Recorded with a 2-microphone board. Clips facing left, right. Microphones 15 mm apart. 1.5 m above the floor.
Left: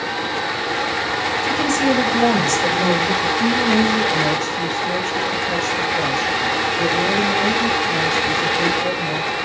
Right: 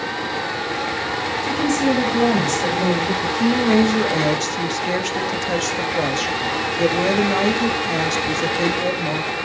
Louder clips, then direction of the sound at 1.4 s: Even; 10° left (ahead or behind).